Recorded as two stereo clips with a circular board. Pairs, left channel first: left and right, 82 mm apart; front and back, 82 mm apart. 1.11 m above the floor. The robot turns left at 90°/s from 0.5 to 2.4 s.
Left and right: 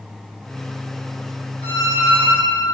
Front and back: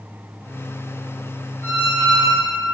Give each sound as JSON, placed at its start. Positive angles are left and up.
{"t": 1.6, "sound": "a squeak", "azimuth_deg": -105, "distance_m": 2.0}